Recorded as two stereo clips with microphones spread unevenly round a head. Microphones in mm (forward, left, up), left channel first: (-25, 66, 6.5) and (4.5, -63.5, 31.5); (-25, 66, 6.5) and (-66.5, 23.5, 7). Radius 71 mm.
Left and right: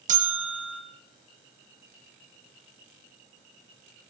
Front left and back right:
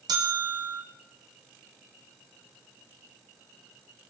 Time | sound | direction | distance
0.1 | a bell | 110° right | 2.5 m